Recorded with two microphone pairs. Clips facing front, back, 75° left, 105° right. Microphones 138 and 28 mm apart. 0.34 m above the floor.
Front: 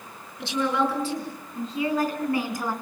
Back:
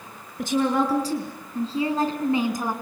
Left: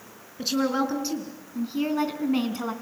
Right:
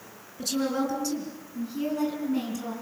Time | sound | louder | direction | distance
0.4 | a woman speaking | back 3 dB, left 3 dB | 140° left | 5 m